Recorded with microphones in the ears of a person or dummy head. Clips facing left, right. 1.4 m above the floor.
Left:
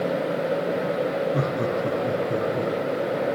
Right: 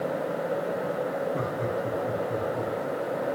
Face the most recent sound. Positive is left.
turn(degrees=45)  # may be behind; listen again after turning